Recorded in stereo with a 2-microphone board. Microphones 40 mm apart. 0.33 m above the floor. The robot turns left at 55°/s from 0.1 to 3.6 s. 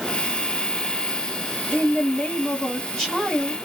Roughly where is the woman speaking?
Left.